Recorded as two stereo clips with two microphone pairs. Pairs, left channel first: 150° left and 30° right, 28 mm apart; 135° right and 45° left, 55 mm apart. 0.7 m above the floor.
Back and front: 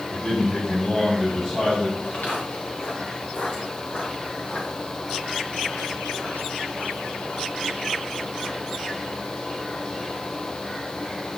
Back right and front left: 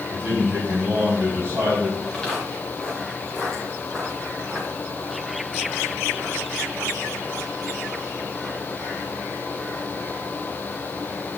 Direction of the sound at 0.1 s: 95° left.